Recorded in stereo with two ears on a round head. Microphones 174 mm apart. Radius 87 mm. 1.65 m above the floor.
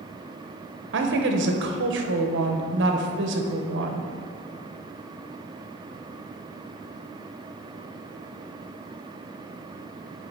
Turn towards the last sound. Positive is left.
turn(degrees=-60)  # may be behind; listen again after turning